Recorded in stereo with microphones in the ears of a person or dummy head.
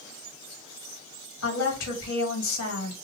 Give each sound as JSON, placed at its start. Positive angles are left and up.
{"t": 1.4, "sound": "a woman speaking", "side_deg": 80, "distance_m": 1.7}